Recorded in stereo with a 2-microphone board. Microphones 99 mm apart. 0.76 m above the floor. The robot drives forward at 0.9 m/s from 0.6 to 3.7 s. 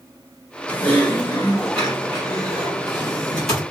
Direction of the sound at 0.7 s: 20° left (ahead or behind).